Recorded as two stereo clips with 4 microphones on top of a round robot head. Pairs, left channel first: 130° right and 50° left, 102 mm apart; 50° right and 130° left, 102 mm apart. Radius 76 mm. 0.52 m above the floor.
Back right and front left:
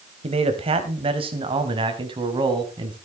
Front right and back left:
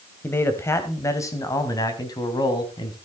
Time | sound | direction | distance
0.2 | a man speaking | 20° left | 3 m